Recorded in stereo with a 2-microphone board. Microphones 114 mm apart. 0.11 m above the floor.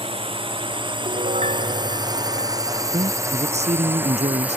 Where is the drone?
50° right (ahead or behind); by 4.6 s 10° right (ahead or behind).